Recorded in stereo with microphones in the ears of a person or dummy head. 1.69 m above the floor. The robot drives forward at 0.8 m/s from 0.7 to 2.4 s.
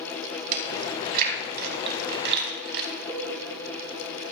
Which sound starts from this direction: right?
Chewing, at 0.5 s.